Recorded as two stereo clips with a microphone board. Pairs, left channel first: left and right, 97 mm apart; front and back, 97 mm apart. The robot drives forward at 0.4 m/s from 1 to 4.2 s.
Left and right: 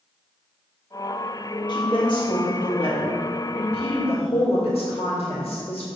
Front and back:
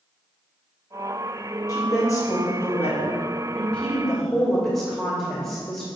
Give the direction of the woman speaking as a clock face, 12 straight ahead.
10 o'clock.